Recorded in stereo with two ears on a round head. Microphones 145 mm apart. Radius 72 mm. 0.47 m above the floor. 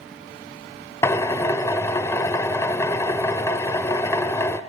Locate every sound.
1.0 s a drill: 20° left (ahead or behind), 0.8 m